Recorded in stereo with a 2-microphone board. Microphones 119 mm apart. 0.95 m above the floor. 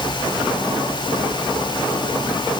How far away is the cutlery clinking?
I don't hear cutlery clinking.